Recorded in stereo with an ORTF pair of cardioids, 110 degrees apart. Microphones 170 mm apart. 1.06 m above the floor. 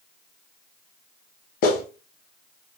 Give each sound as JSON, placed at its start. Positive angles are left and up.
{"t": 1.6, "sound": "a clap", "azimuth_deg": 65, "distance_m": 1.0}